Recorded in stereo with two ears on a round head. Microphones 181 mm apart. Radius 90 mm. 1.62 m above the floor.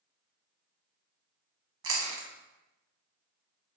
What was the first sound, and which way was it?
Chewing, 70° right (ahead or behind).